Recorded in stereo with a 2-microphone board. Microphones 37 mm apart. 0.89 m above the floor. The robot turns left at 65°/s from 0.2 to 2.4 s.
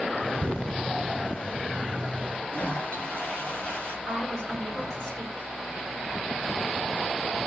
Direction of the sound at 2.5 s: 40° left (ahead or behind).